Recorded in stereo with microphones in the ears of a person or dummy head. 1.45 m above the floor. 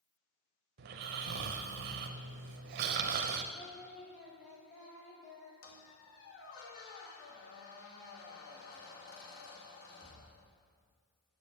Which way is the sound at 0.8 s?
50° right (ahead or behind).